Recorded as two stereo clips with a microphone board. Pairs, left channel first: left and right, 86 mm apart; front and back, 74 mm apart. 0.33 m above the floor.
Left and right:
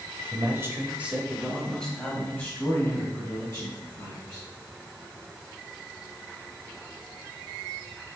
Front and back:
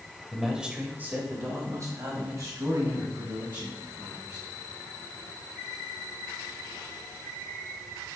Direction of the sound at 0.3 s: 90° right.